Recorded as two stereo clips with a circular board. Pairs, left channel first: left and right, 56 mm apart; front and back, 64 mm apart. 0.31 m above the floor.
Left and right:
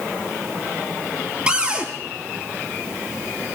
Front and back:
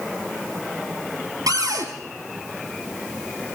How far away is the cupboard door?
About 2.5 m.